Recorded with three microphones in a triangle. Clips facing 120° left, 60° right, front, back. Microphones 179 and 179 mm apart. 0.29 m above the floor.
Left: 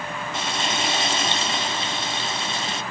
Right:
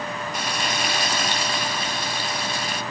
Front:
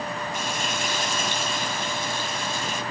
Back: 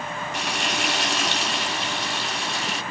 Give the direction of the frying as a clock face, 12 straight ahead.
6 o'clock.